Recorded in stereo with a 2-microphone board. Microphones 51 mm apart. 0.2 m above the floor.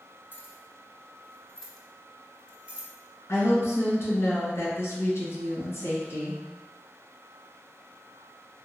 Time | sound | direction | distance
0.3 | keys jangling | 45° left (ahead or behind) | 1.0 m
3.3 | a woman speaking | 55° left (ahead or behind) | 2.0 m